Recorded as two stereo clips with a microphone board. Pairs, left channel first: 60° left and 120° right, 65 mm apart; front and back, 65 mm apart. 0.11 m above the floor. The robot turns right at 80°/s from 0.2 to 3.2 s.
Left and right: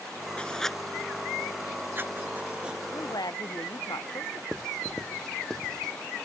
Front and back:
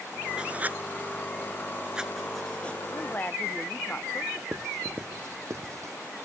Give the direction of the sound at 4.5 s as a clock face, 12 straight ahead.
7 o'clock.